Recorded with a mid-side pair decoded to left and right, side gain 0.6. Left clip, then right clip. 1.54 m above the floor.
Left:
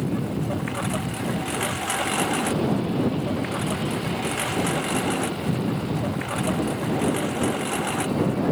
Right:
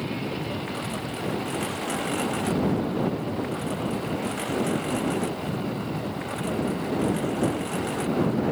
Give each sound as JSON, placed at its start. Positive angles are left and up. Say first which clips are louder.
{"t": 0.0, "sound": "a lawn mower", "louder": "left 2 dB", "azimuth_deg": 30}